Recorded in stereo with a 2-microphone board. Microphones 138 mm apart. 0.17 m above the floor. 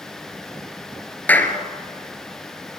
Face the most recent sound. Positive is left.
turn(degrees=10)  # may be behind; listen again after turning